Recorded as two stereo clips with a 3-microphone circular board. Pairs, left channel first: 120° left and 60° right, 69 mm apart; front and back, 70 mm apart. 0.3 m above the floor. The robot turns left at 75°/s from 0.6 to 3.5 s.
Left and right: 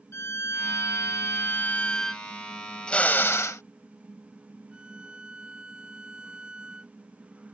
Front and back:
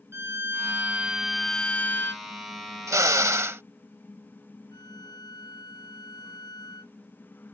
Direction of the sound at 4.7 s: 15° left.